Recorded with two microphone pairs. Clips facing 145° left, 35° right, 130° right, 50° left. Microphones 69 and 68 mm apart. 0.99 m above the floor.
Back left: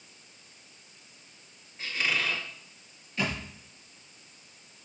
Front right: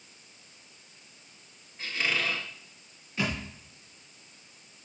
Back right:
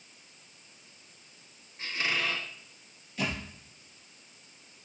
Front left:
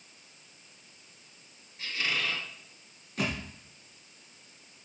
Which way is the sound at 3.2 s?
35° left.